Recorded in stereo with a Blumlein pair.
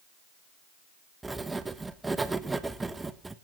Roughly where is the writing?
Ahead.